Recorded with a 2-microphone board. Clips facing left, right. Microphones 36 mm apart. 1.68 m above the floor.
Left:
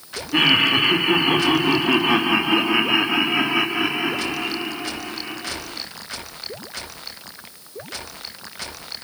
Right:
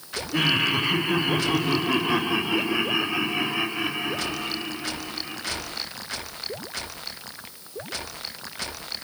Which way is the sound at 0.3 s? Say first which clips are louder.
Left 6 dB; 40° left (ahead or behind).